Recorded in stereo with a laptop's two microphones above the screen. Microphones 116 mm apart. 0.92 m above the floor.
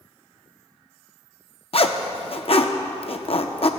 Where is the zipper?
55° left (ahead or behind), 0.7 m.